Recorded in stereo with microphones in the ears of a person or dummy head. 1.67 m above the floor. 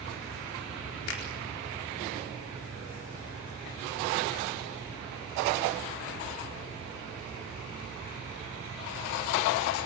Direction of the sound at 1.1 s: 75° left (ahead or behind).